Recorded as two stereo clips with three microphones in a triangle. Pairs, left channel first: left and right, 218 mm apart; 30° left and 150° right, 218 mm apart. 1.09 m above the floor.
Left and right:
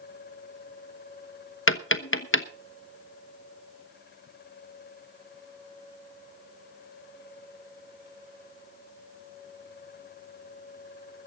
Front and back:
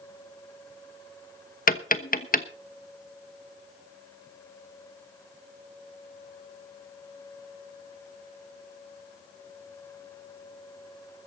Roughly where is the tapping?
Left.